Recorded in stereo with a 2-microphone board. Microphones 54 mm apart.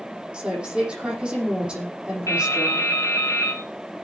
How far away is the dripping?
About 3 m.